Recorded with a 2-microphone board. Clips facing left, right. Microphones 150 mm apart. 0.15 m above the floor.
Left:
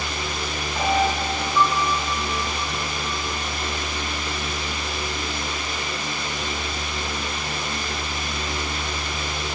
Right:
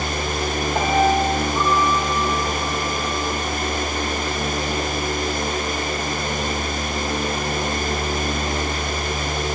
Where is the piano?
85° right, 6 m.